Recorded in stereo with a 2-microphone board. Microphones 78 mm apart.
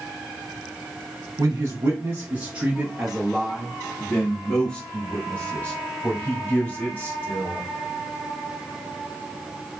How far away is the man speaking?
About 1.0 m.